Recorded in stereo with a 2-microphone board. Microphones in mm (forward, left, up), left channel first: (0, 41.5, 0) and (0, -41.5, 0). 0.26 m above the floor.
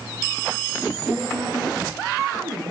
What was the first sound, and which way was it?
A woman speaking, 20° right (ahead or behind).